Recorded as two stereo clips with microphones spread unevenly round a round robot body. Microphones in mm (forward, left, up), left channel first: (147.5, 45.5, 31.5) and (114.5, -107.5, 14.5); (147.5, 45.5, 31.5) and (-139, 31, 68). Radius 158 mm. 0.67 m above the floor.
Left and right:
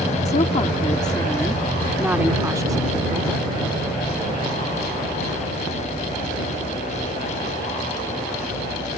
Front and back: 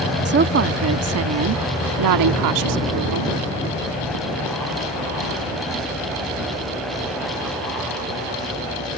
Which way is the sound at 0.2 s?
130° left.